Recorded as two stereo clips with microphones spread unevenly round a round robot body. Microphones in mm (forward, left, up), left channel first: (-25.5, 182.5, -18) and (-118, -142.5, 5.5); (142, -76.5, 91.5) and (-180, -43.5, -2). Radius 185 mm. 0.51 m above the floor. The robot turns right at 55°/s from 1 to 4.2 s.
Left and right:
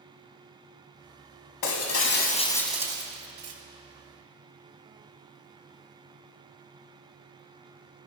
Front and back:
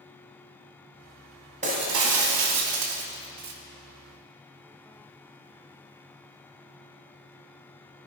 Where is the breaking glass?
105° left, 2.0 m; by 3.5 s 150° right, 2.0 m.